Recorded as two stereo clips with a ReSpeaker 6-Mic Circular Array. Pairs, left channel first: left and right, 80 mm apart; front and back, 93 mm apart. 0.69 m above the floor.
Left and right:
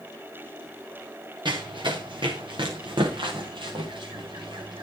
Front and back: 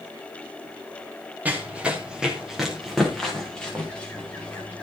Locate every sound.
1.4 s running footsteps: 105° right, 4.5 m; by 4.8 s 70° right, 6.5 m